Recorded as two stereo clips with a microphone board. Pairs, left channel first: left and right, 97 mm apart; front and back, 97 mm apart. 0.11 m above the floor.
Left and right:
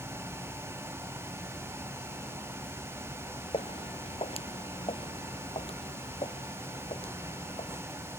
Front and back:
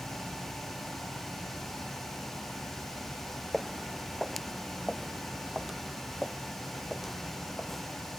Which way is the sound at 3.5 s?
90° left.